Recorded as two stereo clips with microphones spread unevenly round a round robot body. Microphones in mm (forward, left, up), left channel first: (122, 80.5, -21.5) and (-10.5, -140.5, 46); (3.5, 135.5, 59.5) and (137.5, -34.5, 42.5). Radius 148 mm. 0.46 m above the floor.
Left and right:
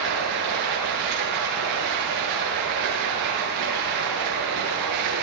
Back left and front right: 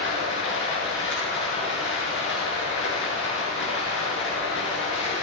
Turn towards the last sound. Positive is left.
turn(degrees=180)